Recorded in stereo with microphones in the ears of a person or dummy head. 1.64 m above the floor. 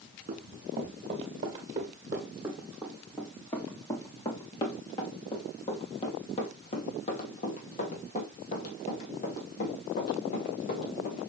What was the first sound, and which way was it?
Running footsteps, 30° right (ahead or behind).